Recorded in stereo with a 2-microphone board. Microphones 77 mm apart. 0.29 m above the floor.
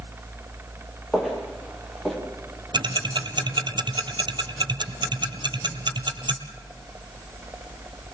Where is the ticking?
80° right, 1.7 m.